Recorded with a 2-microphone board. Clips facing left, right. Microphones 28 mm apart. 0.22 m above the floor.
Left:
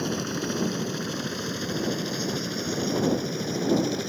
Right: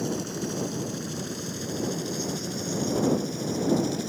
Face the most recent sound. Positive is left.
turn(degrees=25)  # may be behind; listen again after turning